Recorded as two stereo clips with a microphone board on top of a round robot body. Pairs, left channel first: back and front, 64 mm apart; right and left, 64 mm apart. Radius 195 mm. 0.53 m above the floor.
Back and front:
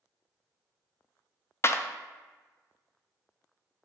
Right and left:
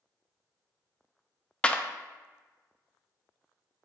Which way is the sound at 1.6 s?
155° right.